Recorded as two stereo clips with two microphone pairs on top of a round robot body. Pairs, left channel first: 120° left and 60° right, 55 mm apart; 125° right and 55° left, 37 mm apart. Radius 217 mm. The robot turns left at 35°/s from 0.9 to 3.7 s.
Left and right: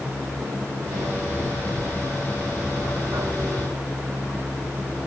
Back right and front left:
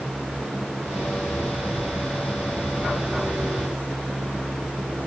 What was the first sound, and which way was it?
Only background noise.